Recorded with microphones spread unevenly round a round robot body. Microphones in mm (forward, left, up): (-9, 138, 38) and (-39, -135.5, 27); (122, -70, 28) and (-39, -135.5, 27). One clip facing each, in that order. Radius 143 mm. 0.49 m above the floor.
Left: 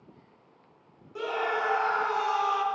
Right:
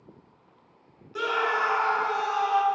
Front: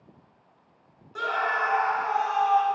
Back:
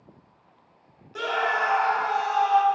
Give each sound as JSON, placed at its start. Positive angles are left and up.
{"t": 1.1, "sound": "a scream", "azimuth_deg": -105, "distance_m": 0.7}